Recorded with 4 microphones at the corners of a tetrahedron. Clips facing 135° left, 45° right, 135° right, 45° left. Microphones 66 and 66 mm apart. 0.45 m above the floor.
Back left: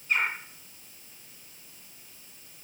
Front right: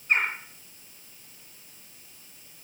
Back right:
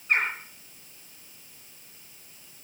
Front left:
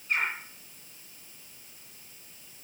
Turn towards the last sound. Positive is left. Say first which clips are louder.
# front right 2 dB, back right 4 dB
turn(degrees=-90)